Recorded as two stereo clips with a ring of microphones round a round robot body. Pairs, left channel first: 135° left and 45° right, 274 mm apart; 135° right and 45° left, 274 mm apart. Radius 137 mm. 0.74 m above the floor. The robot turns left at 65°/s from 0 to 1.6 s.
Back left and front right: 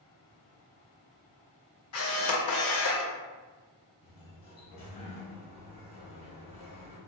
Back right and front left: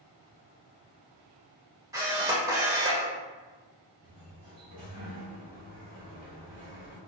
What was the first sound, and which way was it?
A camera shutter, 120° left.